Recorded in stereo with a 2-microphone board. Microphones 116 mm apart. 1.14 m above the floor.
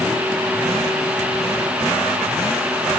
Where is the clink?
I don't hear a clink.